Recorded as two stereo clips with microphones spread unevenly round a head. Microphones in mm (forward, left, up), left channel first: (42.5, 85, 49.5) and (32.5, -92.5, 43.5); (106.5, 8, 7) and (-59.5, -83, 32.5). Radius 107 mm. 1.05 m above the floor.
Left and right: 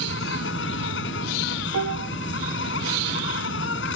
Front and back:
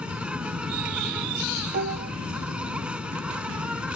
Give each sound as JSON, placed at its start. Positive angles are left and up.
{"t": 0.0, "sound": "an insect", "azimuth_deg": 125}
{"t": 1.7, "sound": "dishes clattering", "azimuth_deg": -110}